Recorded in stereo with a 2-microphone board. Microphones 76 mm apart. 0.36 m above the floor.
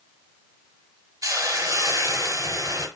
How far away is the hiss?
About 1.1 m.